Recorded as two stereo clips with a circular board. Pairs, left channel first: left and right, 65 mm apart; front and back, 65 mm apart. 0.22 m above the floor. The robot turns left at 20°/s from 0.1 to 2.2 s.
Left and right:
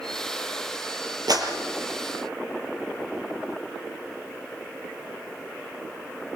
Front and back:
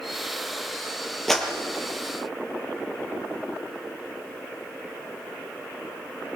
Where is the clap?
85° right, 4.5 m; by 1.5 s 90° right, 4.5 m.